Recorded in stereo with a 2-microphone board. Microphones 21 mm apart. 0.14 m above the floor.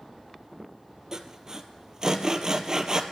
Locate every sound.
1.1 s sawing: 30° right (ahead or behind), 1.0 m